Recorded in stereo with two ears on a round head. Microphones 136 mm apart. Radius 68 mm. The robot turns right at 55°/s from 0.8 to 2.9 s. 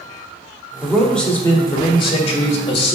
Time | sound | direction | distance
0.8 | a man speaking | 10° right | 1.6 m